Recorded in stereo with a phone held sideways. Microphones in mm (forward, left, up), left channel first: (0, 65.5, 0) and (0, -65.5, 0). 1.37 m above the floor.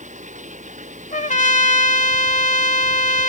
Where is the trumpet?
80° left.